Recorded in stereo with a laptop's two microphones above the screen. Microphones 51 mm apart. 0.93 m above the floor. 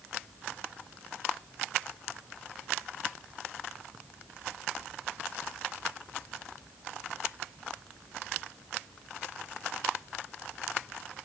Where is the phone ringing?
I don't hear a phone ringing.